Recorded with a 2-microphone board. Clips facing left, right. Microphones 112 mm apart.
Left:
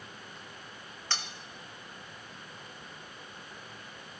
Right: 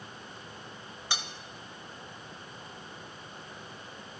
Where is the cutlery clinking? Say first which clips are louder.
Right 1 dB; 10° right (ahead or behind), 0.7 m.